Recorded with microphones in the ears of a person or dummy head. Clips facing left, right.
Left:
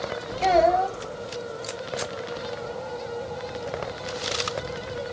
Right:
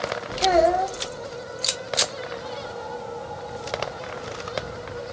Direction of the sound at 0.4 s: 10° right (ahead or behind).